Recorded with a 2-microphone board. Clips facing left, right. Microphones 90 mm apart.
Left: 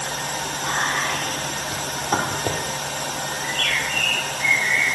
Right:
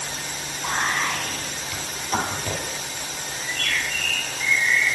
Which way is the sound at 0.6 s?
40° left (ahead or behind).